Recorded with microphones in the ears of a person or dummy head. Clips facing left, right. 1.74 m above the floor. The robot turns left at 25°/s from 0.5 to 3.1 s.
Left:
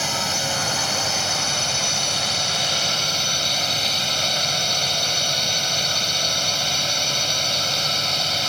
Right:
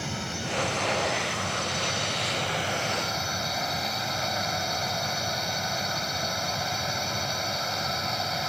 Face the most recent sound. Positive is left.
turn(degrees=45)